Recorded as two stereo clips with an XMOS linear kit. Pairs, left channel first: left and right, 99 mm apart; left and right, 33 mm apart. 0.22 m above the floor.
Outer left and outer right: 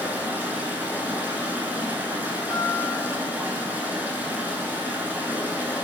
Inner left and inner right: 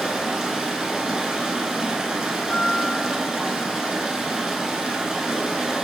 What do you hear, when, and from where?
0.0 s running water: 20° right (ahead or behind), 0.8 m
2.5 s a guitar: 55° left (ahead or behind), 1.8 m